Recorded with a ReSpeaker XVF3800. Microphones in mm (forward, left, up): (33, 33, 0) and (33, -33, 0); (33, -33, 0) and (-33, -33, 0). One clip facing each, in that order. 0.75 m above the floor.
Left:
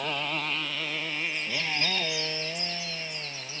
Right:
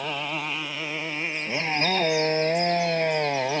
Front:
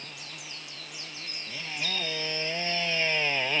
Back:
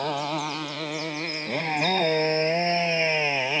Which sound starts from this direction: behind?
A motorcycle, at 0.0 s.